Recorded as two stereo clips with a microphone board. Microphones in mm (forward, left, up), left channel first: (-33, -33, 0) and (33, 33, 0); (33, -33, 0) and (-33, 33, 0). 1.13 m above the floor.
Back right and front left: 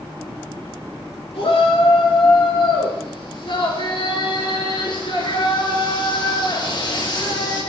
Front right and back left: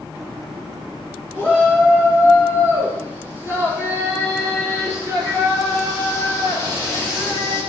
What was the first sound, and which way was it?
A shout, 145° right.